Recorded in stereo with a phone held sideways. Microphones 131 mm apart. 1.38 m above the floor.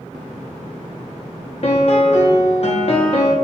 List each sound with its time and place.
1.6 s a piano: 50° left (ahead or behind), 0.6 m